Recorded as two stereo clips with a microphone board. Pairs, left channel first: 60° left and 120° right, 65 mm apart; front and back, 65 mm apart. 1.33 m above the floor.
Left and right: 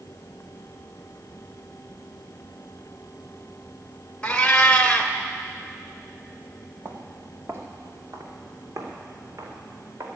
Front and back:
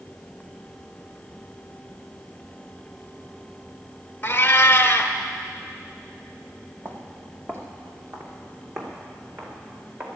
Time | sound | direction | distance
4.2 | a cat meowing | 10° left | 1.0 m
6.8 | footsteps | 160° right | 2.0 m